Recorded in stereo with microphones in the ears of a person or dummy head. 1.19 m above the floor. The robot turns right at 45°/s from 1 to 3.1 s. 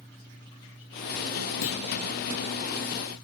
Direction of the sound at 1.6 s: 85° left.